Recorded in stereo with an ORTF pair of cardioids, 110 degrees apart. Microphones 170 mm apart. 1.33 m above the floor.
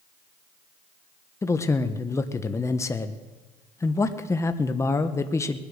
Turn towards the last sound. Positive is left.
turn(degrees=20)